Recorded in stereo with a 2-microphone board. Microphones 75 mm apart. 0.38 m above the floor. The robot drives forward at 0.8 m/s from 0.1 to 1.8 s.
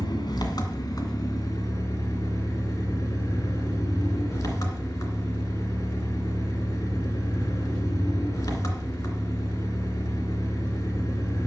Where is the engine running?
75° left (ahead or behind), 1.7 m; by 11.5 s 45° left (ahead or behind), 2 m.